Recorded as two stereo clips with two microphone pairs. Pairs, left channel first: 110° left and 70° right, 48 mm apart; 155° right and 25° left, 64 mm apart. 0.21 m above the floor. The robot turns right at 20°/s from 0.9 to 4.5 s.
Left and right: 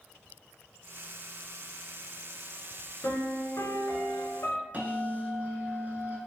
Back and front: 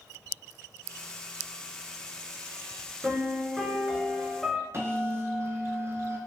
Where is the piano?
90° left, 0.6 m; by 4.6 s 120° left, 0.6 m.